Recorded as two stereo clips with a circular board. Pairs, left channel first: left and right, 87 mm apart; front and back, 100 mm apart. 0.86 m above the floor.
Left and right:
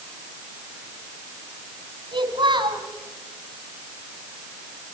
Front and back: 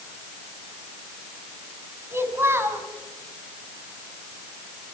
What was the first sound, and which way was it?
A child speaking, 115° right.